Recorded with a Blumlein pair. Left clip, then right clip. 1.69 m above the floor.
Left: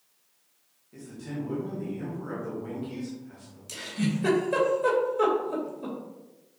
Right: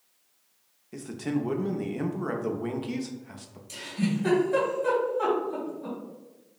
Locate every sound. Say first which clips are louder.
0.9 s a man speaking: right 7 dB; 60° right, 0.9 m
3.7 s a giggle: even; 50° left, 2 m